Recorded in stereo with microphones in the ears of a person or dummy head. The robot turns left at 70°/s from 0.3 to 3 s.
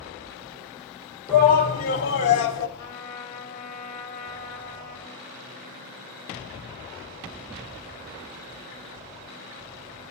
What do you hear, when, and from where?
1.3 s a shout: 170° left, 1.3 m; by 2.7 s 75° left, 1.3 m
2.8 s a trumpet: 55° left (ahead or behind), 1.7 m; by 5.2 s 40° left (ahead or behind), 1.7 m